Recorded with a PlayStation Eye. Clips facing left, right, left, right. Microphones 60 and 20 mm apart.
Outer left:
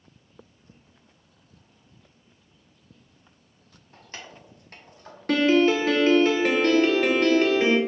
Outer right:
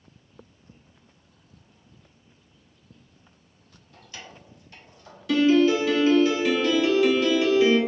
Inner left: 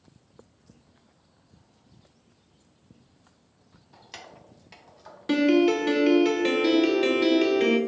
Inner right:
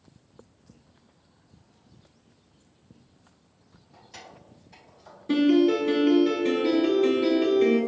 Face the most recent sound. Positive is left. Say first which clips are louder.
# outer right 1 dB, even
turn(degrees=50)  # may be behind; listen again after turning